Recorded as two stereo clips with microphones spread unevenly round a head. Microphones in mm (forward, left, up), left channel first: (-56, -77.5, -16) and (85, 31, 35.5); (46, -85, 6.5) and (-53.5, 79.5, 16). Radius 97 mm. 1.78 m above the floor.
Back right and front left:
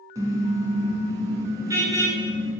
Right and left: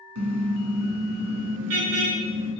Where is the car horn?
110° left, 7.5 m.